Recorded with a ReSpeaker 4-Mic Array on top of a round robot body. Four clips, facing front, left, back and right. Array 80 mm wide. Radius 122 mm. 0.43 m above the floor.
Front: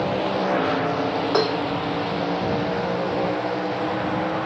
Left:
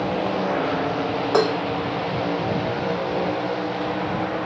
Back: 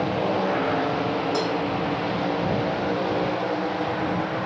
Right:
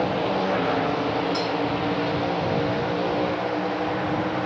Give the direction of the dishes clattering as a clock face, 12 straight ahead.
10 o'clock.